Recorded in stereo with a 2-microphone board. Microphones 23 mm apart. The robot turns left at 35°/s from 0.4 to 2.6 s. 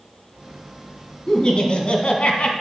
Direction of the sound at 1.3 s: 145° left.